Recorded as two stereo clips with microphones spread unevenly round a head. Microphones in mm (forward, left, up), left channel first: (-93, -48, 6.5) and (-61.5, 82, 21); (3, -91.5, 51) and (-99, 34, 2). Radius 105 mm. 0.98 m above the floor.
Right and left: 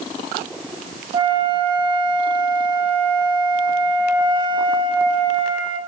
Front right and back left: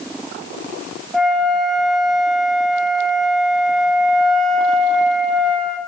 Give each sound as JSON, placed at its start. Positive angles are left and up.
{"t": 1.1, "sound": "a flute", "azimuth_deg": 70, "distance_m": 0.5}